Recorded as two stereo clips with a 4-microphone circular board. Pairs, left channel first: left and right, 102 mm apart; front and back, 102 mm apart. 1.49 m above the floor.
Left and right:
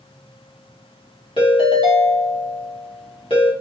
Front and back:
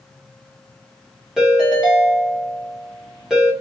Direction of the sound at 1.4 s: 95° left.